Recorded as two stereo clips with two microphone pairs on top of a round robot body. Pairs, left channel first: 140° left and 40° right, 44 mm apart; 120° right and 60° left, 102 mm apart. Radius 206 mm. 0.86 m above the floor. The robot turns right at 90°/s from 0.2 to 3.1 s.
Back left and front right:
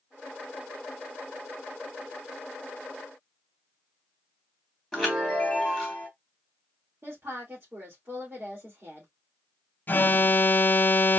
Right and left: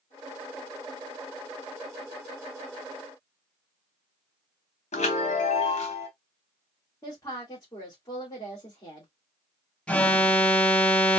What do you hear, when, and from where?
4.9 s a chime: 130° right, 0.7 m
7.0 s a woman speaking: 65° right, 2.5 m
9.9 s an alarm: 170° left, 0.8 m